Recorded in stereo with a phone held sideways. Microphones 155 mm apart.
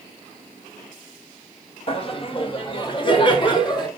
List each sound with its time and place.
1.9 s laughter: 40° left (ahead or behind), 1.4 m; by 3.9 s 35° left (ahead or behind), 2.5 m